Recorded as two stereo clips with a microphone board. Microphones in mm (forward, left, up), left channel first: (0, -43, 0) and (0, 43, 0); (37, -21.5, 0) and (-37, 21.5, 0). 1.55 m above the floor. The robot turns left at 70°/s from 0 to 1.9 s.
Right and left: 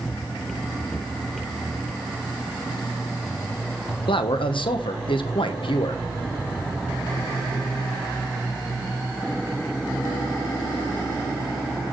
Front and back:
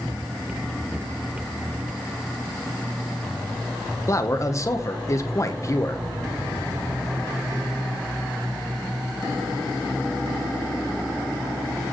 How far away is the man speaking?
About 1.0 m.